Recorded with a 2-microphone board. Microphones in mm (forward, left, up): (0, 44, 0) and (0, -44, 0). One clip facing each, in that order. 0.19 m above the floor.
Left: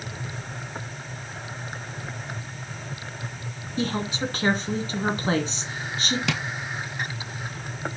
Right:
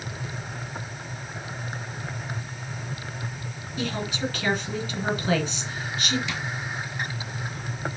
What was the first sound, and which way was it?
A woman speaking, 35° left (ahead or behind).